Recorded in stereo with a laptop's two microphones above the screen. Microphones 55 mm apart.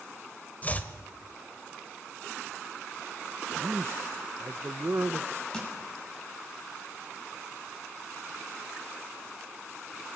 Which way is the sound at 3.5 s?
50° right (ahead or behind).